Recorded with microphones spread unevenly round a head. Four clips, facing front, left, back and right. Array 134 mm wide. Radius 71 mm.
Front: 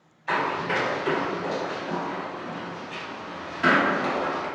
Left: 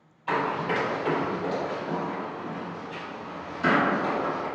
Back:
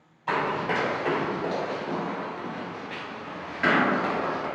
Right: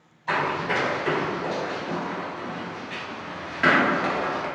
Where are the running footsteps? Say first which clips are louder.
Right 1 dB, even; 165° left, 2.0 m; by 4.5 s 65° right, 1.9 m.